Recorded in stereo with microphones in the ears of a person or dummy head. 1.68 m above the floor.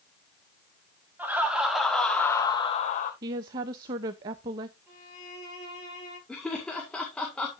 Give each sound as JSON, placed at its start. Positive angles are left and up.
{"t": 1.2, "sound": "laughter", "side_deg": -10, "distance_m": 3.0}
{"t": 3.2, "sound": "a woman speaking", "side_deg": -20, "distance_m": 0.6}
{"t": 4.9, "sound": "a violin", "side_deg": -10, "distance_m": 6.5}
{"t": 6.3, "sound": "laughter", "side_deg": 5, "distance_m": 1.9}